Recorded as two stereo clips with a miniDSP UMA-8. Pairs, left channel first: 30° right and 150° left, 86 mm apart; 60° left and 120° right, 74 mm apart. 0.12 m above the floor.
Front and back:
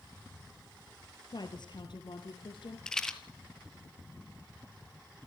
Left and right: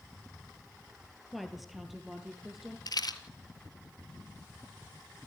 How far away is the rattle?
About 1.7 m.